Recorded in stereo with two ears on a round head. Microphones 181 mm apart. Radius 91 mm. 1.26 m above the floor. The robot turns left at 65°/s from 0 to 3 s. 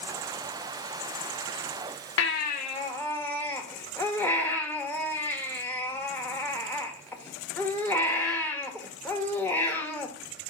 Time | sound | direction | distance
2.2 | a baby crying | 65° left | 1.3 m